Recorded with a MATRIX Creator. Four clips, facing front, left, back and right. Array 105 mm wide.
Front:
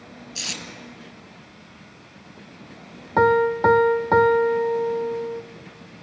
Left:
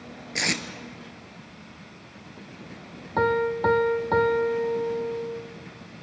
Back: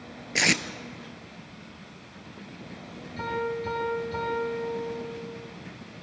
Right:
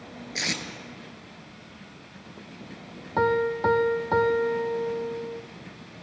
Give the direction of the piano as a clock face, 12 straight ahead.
12 o'clock.